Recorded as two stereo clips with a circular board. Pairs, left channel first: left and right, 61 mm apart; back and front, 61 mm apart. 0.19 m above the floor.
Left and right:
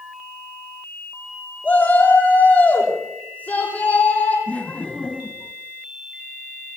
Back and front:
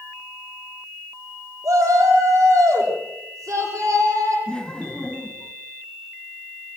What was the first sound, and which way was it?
A shout, 25° left.